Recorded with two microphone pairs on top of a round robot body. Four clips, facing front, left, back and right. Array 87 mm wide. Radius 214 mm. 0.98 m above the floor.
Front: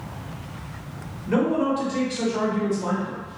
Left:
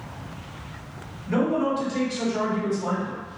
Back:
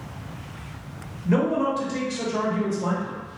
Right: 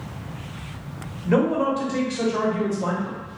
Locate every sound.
1.2 s a man speaking: 95° right, 1.2 m